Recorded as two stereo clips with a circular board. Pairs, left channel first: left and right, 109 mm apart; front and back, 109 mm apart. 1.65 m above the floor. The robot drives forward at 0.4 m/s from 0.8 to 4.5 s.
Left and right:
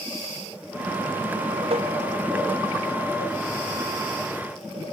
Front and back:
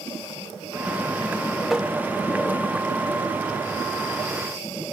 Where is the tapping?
90° right; by 1.9 s 95° right.